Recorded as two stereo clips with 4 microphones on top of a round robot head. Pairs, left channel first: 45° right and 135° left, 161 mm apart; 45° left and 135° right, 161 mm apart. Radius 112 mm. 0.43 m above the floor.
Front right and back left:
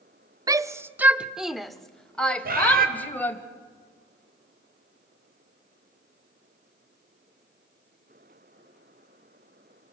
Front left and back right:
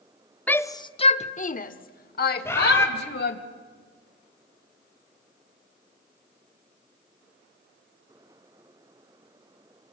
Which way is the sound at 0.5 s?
115° left.